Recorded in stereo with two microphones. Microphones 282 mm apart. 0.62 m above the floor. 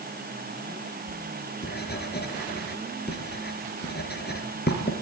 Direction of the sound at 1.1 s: 35° left (ahead or behind).